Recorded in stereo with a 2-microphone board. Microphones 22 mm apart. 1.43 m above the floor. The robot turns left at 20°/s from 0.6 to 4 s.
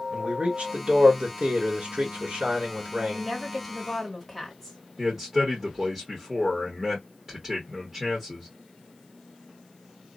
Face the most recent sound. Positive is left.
turn(degrees=-15)  # may be behind; listen again after turning